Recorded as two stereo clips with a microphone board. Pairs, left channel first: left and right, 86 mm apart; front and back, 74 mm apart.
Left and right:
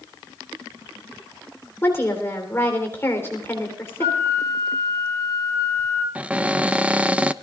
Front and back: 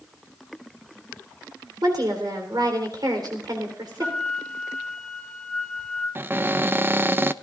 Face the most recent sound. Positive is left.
turn(degrees=-150)